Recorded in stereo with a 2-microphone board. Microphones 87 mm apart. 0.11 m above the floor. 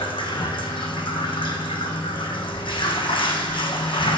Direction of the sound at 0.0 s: 75° left (ahead or behind).